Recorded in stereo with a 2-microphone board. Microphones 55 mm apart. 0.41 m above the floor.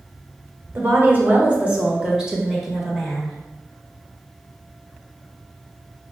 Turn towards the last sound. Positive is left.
turn(degrees=0)  # may be behind; listen again after turning